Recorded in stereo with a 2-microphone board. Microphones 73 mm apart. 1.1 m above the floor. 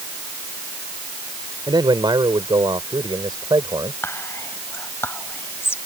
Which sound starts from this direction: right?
A man speaking, at 1.7 s.